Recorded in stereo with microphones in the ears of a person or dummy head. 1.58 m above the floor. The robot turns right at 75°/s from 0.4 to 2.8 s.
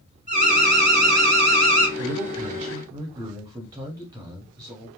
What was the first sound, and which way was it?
An alarm, 140° right.